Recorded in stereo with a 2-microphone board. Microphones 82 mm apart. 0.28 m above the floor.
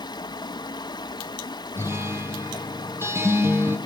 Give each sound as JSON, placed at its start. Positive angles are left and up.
{"t": 0.0, "sound": "running water", "side_deg": 60, "distance_m": 1.6}
{"t": 1.8, "sound": "a guitar", "side_deg": -30, "distance_m": 3.0}